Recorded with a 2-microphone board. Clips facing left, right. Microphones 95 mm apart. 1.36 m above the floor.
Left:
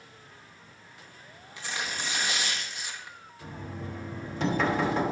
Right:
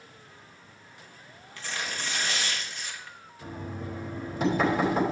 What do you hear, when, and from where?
1.6 s tearing paper: 15° left (ahead or behind), 1.1 m
3.4 s knocking: 5° right (ahead or behind), 3 m